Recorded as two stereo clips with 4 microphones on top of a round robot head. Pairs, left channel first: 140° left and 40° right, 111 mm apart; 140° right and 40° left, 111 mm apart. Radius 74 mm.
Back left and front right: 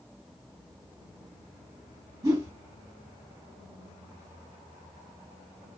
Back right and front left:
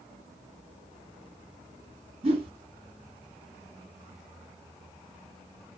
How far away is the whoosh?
About 1.7 m.